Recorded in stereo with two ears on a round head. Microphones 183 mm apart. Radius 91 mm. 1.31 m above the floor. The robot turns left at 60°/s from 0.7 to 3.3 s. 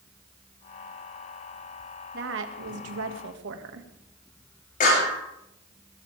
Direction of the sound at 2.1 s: 50° right.